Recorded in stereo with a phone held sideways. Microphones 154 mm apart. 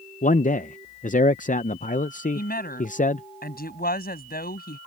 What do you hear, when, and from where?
0.2 s a man speaking: 55° left (ahead or behind)
2.4 s a woman speaking: 80° left